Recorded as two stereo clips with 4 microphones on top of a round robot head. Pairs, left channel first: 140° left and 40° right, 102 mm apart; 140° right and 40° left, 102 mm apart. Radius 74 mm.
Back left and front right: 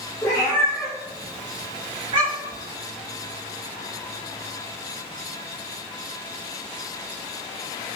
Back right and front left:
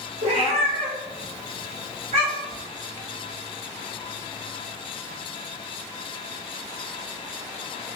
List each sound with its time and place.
0.2 s a cat meowing: 75° left, 0.9 m; by 2.6 s 5° right, 1.1 m